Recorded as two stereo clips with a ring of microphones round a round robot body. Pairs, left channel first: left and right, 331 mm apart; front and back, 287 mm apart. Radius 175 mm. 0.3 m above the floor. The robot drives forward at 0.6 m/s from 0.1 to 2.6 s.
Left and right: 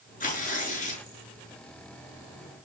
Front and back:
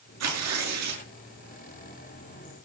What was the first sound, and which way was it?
Tearing paper, 155° left.